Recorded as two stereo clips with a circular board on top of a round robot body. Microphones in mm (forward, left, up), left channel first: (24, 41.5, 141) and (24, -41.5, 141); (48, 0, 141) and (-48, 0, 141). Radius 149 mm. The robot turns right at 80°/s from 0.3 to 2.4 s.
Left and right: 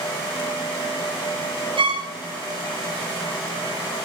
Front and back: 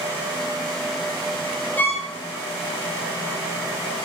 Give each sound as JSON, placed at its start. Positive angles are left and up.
{"t": 1.8, "sound": "a violin", "azimuth_deg": -75, "distance_m": 1.4}